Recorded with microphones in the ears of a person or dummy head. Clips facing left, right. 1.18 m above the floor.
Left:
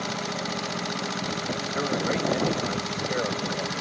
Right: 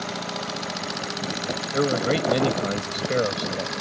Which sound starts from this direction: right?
A man speaking, at 1.7 s.